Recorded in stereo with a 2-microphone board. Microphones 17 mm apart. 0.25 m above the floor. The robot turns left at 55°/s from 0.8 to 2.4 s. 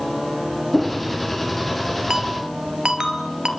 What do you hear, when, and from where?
0.7 s a whoosh: 15° right (ahead or behind), 5.5 m; by 1.0 s 25° right (ahead or behind), 5.5 m
2.1 s a ringtone: 40° right (ahead or behind), 2.5 m; by 3.5 s 55° right (ahead or behind), 2.5 m